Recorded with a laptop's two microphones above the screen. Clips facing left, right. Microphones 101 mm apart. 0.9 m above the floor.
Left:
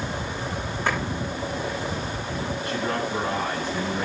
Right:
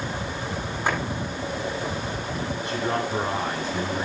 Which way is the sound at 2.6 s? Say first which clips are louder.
Right 1 dB; 20° right (ahead or behind).